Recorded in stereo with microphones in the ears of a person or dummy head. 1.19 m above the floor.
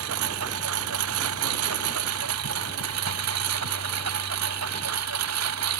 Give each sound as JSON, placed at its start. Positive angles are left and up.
{"t": 0.0, "sound": "a lawn mower", "side_deg": -80}